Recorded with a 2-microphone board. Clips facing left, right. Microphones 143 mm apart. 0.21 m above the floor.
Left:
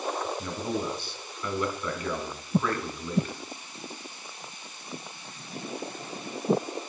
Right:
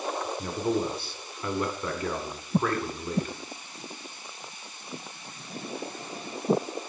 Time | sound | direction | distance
0.4 | a man speaking | 35° right (ahead or behind) | 2 m